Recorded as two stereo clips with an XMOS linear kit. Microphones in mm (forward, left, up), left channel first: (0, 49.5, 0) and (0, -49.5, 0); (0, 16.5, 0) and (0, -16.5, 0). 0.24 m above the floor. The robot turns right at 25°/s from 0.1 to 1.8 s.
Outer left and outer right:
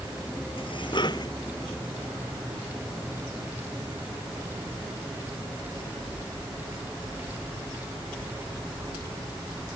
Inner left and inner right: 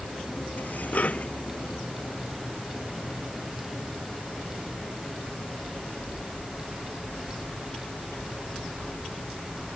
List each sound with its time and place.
0.6 s dishes clattering: 60° left (ahead or behind); by 1.3 s 40° left (ahead or behind)